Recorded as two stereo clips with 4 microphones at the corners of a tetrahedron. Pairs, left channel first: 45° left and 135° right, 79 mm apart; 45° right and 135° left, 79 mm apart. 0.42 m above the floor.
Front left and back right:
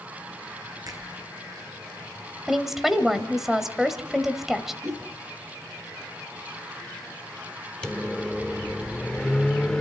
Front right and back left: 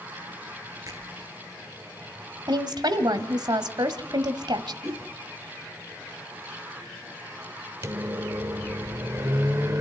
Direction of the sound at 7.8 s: 120° left.